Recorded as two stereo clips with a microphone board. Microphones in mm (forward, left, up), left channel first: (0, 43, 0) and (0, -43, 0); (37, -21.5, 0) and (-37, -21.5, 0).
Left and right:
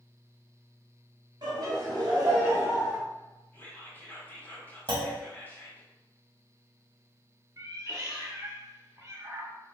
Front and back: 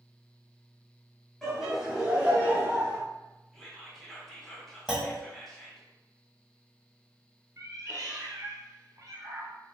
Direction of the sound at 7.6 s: 140° right.